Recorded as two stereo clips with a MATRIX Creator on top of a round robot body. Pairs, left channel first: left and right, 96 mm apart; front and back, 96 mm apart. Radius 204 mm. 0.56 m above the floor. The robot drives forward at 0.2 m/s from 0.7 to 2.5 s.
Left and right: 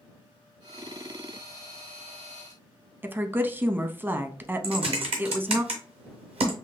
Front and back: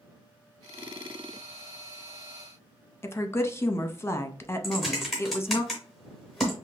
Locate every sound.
3.0 s a woman speaking: 40° right, 0.9 m
4.6 s typing on a keyboard: 90° right, 0.6 m